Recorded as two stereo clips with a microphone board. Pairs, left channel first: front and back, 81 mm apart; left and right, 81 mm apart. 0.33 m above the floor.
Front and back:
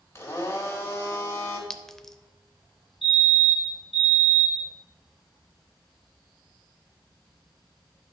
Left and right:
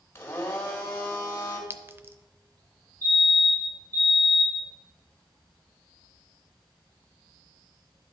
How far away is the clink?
About 0.5 m.